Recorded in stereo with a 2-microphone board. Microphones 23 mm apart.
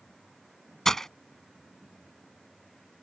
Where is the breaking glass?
15° left (ahead or behind).